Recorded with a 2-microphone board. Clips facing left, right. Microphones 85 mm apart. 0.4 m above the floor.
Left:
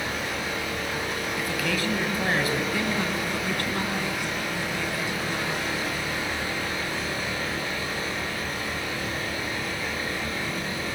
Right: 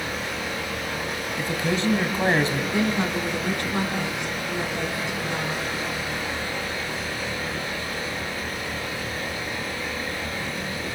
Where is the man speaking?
25° right (ahead or behind), 2.5 m.